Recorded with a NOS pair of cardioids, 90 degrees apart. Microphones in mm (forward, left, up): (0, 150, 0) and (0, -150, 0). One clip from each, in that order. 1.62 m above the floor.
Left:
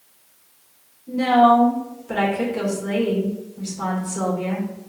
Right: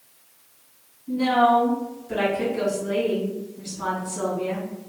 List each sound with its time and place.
1.1 s a woman speaking: 65° left, 1.8 m